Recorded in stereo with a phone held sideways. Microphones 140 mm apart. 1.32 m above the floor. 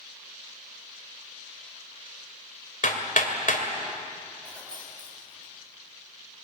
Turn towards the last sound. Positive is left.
turn(degrees=5)  # may be behind; listen again after turning